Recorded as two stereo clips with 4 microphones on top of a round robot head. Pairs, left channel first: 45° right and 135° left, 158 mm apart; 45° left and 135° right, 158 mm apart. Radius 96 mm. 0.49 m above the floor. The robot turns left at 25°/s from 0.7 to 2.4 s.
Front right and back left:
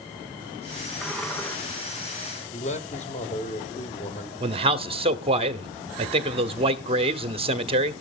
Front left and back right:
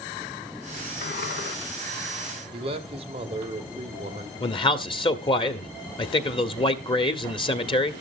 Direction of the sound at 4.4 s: 95° left.